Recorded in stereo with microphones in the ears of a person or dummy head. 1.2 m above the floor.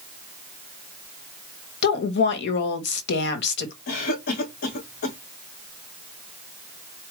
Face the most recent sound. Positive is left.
turn(degrees=60)  # may be behind; listen again after turning